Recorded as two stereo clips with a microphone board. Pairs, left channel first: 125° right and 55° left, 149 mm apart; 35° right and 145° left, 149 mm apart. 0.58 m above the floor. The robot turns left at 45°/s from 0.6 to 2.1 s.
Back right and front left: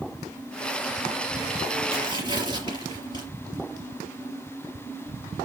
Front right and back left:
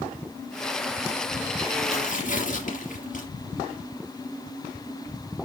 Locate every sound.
1.9 s tearing paper: 5° left, 3.5 m; by 3.3 s 5° right, 3.5 m